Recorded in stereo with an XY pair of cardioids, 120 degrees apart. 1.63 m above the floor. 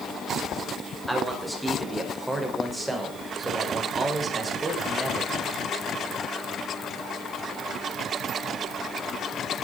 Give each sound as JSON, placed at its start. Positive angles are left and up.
{"t": 1.1, "sound": "a man speaking", "azimuth_deg": -5, "distance_m": 5.5}